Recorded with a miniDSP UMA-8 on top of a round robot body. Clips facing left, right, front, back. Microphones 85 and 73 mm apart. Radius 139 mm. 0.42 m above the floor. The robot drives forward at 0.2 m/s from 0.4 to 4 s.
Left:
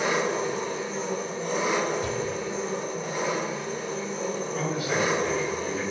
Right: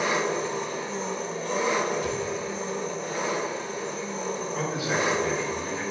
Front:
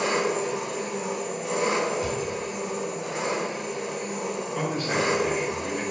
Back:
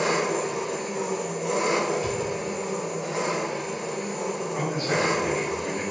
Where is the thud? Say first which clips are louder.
Even, back 1 dB; 30° left, 0.9 m.